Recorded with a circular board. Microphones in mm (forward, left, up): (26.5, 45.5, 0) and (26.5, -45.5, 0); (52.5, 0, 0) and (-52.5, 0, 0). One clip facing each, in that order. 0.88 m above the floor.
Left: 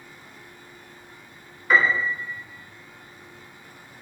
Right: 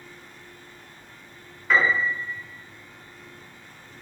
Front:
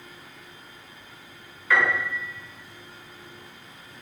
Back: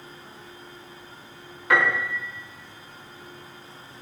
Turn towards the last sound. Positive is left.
turn(degrees=175)